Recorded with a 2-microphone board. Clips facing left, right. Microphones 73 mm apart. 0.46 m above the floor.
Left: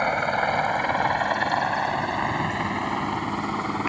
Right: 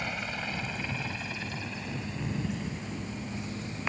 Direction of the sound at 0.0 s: 50° left (ahead or behind).